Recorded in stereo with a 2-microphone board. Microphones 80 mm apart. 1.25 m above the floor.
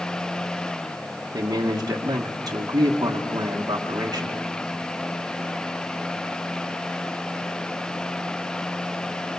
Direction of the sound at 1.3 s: 50° right (ahead or behind).